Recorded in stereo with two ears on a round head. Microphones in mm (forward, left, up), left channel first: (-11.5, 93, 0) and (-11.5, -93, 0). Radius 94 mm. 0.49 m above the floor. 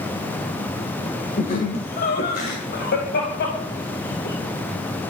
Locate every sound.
1.4 s laughter: 40° left (ahead or behind), 2 m; by 4.3 s 55° left (ahead or behind), 4 m